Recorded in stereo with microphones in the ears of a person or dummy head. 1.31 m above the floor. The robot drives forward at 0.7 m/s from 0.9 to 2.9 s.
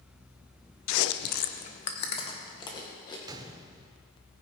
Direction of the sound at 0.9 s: 80° left.